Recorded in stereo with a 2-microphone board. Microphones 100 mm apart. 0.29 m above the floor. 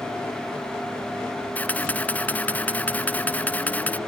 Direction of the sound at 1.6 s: 15° left (ahead or behind).